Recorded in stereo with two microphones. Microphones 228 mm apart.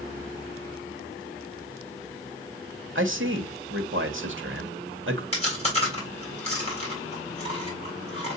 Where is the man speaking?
60° right (ahead or behind), 1.2 m.